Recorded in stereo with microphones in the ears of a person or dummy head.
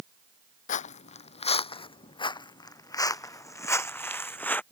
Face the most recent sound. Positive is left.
turn(degrees=10)  # may be behind; listen again after turning